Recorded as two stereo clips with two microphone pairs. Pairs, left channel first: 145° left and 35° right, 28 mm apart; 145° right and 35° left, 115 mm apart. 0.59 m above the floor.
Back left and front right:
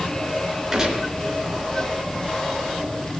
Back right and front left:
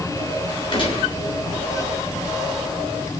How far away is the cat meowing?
I don't hear a cat meowing.